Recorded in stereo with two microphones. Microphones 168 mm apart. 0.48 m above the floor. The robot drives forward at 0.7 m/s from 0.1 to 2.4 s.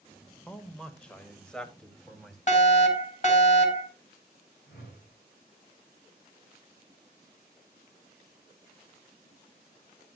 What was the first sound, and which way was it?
A man speaking, 5° left (ahead or behind).